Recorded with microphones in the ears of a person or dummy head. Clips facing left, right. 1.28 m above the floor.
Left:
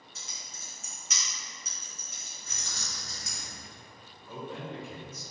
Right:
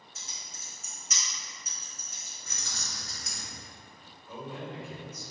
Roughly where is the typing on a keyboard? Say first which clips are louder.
Left 1 dB; left.